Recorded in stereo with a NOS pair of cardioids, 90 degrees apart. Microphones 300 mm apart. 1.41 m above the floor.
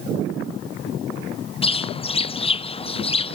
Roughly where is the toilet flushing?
No toilet flushing in this recording.